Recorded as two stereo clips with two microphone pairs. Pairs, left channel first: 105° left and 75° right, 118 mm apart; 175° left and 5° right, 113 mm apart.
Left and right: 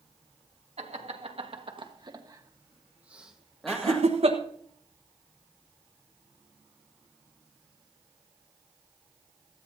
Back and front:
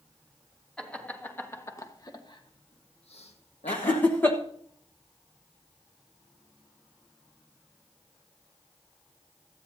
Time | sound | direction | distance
0.8 | laughter | 100° right | 1.8 m
3.7 | laughter | 110° right | 1.1 m